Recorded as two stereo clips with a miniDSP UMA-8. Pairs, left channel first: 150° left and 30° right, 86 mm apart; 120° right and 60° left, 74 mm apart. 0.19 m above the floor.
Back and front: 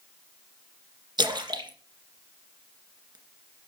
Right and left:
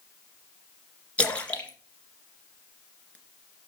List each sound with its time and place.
1.2 s a splash: 50° right, 2 m